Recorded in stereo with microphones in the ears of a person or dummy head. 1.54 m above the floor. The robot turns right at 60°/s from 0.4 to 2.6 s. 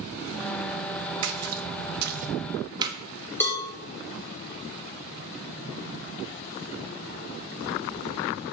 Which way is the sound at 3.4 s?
15° left (ahead or behind).